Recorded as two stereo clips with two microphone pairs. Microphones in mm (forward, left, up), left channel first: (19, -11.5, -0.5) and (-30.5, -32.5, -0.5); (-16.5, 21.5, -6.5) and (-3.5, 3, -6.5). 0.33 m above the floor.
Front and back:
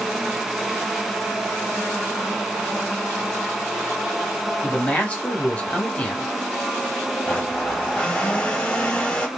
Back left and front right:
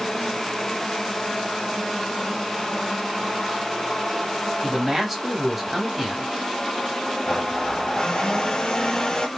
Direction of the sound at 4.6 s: 15° left.